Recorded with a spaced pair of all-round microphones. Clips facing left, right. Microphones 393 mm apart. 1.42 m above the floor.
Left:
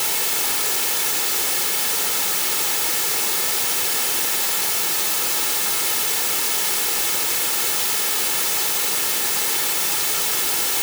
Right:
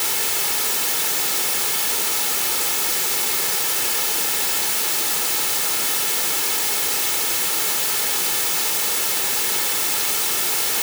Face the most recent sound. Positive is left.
No sound to turn to.